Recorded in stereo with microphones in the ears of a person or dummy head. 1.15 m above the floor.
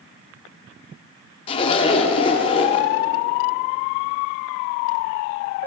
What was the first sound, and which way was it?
A zipper, 35° left (ahead or behind).